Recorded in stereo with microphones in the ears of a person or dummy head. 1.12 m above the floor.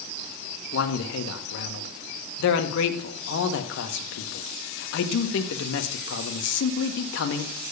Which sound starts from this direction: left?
A man speaking, at 0.7 s.